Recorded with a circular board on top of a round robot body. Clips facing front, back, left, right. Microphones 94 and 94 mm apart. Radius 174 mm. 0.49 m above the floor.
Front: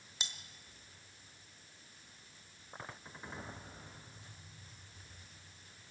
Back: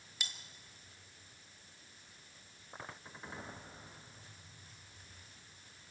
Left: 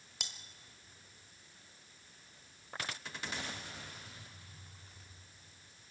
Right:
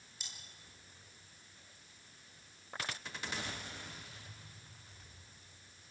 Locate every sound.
0.2 s cutlery clinking: 65° left, 1.5 m